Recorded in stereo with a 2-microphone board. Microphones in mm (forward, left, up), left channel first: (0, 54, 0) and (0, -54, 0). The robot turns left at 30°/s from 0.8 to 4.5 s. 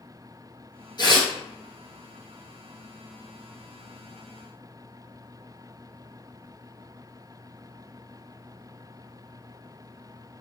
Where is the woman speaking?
I don't hear a woman speaking.